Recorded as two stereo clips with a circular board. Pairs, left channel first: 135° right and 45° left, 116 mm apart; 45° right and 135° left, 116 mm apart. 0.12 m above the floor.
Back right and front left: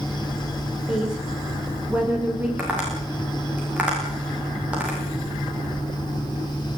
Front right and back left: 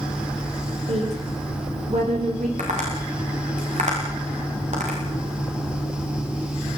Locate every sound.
0.9 s a woman speaking: 125° left, 8 m
2.6 s tapping: 125° left, 10 m